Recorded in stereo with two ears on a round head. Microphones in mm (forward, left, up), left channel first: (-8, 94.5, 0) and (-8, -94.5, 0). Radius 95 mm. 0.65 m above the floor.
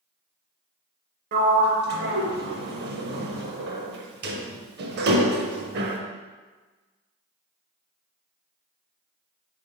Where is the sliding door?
50° right (ahead or behind), 0.6 m.